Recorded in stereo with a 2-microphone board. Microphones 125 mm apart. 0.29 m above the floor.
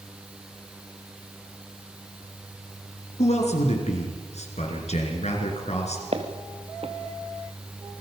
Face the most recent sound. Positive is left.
turn(degrees=-50)  # may be behind; listen again after turning